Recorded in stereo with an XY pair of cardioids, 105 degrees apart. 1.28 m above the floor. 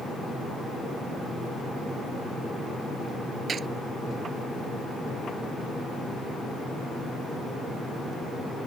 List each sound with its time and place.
3.5 s a gunshot: 45° right